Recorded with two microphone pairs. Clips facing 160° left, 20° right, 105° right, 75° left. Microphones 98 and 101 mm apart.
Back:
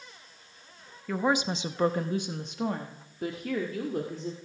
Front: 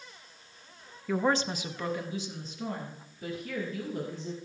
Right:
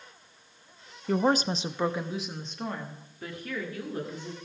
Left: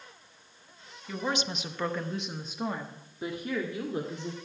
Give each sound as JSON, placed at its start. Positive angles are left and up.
{"t": 1.1, "sound": "a woman speaking", "azimuth_deg": -110, "distance_m": 0.8}